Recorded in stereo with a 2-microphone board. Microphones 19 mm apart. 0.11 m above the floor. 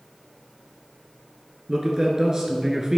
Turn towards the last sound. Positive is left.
turn(degrees=-30)  # may be behind; listen again after turning